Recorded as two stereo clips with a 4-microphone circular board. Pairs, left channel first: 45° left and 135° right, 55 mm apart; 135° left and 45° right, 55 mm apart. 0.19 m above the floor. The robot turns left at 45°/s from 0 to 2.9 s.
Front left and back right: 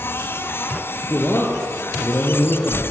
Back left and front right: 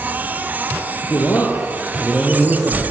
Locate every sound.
1.0 s a man speaking: 100° left, 5.5 m; by 2.8 s 20° left, 5.5 m